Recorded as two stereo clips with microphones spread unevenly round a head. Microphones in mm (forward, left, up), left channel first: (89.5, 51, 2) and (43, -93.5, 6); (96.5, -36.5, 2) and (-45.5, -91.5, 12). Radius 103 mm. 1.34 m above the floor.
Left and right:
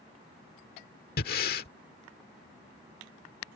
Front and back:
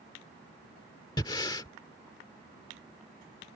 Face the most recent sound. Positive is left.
turn(degrees=90)